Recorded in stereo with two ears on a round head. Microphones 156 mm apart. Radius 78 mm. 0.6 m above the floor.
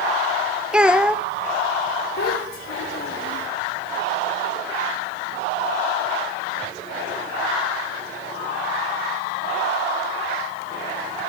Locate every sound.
0.7 s a child speaking: 5° right (ahead or behind), 0.6 m
2.2 s a child speaking: 60° left (ahead or behind), 2.5 m